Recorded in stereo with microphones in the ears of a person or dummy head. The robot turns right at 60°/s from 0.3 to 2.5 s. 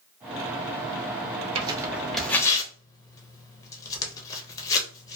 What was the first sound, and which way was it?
Tearing paper, 25° right (ahead or behind).